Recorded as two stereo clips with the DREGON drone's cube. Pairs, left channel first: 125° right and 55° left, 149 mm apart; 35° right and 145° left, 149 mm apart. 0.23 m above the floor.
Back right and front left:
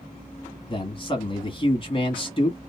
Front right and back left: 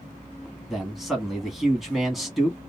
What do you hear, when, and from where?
0.7 s a man speaking: 125° right, 1.2 m